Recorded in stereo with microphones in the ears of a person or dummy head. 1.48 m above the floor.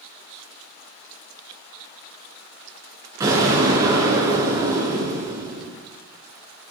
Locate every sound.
3.2 s an explosion: 20° right (ahead or behind), 5 m